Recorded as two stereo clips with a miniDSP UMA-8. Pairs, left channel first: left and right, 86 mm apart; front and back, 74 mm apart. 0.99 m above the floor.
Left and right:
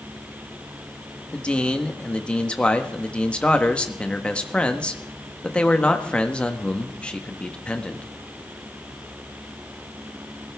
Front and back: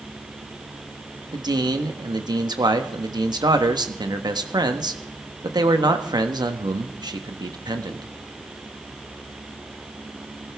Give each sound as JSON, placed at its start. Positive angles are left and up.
{"t": 1.3, "sound": "a man speaking", "azimuth_deg": 165, "distance_m": 1.3}